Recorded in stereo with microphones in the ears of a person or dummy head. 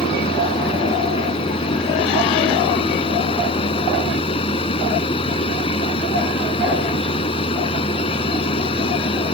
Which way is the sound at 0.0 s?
25° left (ahead or behind).